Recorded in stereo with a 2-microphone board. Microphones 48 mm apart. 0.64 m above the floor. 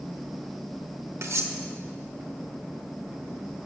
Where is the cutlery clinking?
70° right (ahead or behind), 1.3 m.